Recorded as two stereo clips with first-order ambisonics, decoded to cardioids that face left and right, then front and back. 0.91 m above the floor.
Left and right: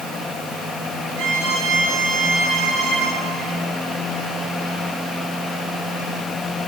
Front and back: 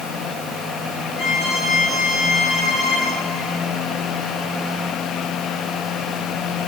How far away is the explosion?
I don't hear an explosion.